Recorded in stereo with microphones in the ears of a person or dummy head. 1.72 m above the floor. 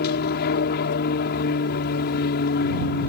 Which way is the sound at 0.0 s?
60° left (ahead or behind).